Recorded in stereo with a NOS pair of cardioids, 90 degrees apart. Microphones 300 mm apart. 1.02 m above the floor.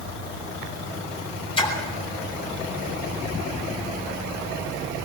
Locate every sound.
1.6 s a splash: 15° left, 9.5 m